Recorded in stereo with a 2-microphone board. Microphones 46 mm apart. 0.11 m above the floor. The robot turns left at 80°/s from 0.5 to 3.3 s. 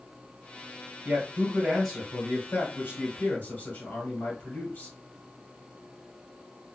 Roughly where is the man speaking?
Behind right.